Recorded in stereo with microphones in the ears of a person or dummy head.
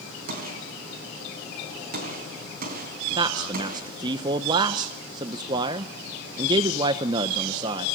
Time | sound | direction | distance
0.3 | a gunshot | 55° right (ahead or behind) | 4 m
3.2 | a man speaking | 25° right (ahead or behind) | 0.8 m